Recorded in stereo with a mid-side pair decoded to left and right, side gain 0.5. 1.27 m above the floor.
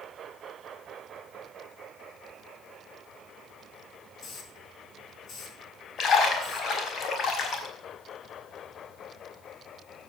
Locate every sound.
4.2 s a hiss: 50° left, 4 m
6.0 s a splash: 50° left, 4.5 m